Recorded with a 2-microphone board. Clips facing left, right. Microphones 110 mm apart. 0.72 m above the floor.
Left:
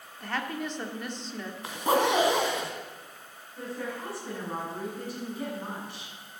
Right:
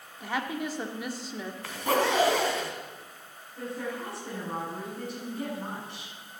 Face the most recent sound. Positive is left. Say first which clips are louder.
# right 1 dB
turn(degrees=0)  # may be behind; listen again after turning